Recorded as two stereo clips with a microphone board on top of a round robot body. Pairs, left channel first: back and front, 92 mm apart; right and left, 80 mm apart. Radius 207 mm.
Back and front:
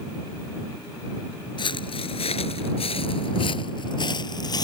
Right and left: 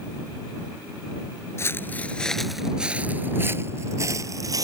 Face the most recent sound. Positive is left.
turn(degrees=135)